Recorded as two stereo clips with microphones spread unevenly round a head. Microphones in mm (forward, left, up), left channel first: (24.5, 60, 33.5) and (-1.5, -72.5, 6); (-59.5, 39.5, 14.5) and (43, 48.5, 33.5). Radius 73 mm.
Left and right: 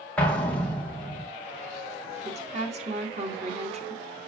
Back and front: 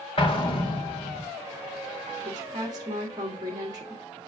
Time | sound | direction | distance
0.2 | an explosion | 165° left | 1.9 m
2.2 | a woman speaking | 60° right | 2.0 m